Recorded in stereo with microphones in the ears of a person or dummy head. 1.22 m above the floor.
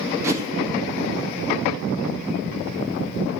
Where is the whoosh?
15° right (ahead or behind), 4 m.